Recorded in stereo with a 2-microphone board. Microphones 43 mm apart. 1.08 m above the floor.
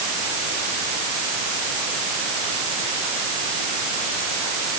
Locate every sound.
Only background noise.